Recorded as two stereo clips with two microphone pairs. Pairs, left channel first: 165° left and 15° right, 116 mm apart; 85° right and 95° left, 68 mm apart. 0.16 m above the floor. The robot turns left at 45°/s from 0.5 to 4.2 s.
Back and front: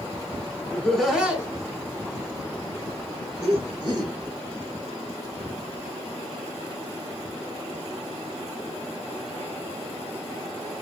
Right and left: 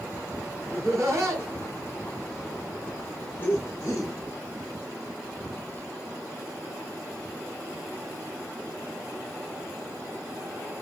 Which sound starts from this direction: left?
Laughter, at 0.7 s.